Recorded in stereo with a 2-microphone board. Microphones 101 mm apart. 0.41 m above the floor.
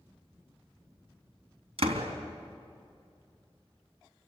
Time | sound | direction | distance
1.8 | a door slam | 75° right (ahead or behind) | 3 m